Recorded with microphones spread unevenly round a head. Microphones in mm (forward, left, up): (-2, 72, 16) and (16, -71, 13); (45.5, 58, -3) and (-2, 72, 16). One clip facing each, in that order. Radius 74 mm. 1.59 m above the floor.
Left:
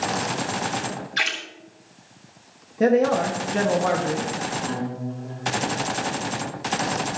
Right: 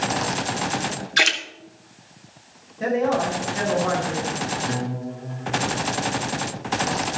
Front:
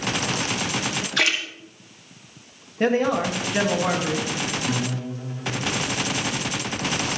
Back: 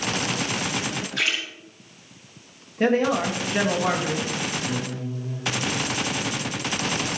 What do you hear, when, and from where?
1.2 s a splash: 55° right, 1.7 m
2.8 s a man speaking: 75° left, 1.7 m
4.7 s a guitar: 5° right, 3 m